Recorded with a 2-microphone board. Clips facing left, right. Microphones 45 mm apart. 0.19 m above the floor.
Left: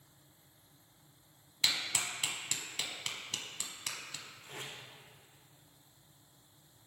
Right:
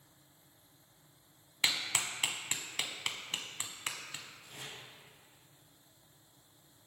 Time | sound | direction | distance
1.6 | a clap | 25° right (ahead or behind) | 1.2 m
4.4 | tape being pulled | 65° left (ahead or behind) | 4.5 m